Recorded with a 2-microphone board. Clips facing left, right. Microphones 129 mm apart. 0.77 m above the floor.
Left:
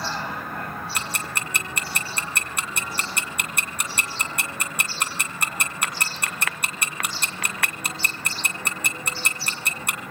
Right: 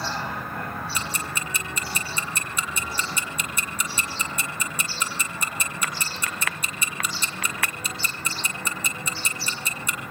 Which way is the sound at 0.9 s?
65° left (ahead or behind).